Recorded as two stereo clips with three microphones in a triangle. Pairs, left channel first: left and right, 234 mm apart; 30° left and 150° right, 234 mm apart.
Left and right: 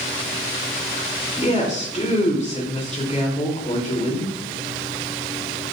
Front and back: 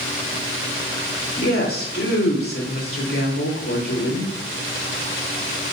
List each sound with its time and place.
1.4 s a woman speaking: 35° left, 2.5 m